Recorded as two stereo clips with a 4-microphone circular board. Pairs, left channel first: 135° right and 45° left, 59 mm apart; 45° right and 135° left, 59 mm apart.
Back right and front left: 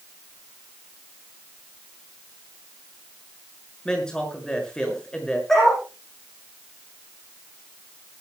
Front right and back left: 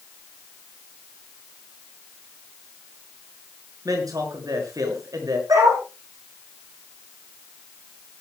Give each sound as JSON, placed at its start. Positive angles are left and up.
{"t": 3.9, "sound": "a man speaking", "azimuth_deg": 145, "distance_m": 6.0}
{"t": 5.5, "sound": "a dog barking", "azimuth_deg": 140, "distance_m": 9.0}